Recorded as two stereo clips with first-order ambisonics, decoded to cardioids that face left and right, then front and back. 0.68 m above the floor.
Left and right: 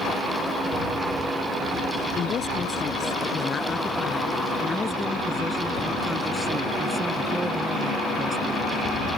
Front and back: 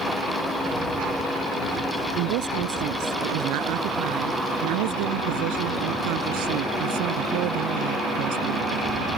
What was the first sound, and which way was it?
A woman speaking, 155° left.